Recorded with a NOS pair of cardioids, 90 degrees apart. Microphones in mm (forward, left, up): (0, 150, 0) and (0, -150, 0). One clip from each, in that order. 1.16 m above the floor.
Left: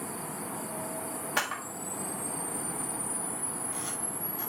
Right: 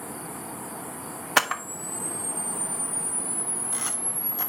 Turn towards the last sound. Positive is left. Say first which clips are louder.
# right 9 dB
turn(degrees=-55)